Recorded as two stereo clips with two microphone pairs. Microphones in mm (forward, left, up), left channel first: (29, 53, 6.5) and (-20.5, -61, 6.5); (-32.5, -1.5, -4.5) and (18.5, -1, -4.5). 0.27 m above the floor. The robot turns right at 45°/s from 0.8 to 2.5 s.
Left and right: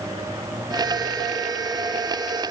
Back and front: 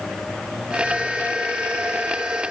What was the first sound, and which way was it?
Only background noise.